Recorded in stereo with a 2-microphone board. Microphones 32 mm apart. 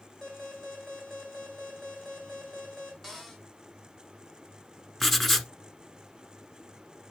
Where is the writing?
10° left (ahead or behind), 0.9 m.